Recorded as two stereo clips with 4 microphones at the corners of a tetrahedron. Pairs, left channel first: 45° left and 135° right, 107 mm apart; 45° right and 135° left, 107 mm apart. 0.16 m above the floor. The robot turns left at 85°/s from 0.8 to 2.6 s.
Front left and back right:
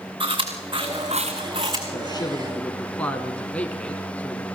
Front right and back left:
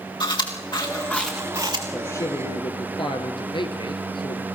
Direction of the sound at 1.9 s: 25° left.